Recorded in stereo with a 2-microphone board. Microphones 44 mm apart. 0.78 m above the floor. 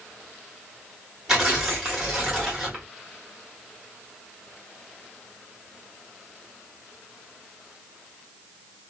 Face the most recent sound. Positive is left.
turn(degrees=-10)  # may be behind; listen again after turning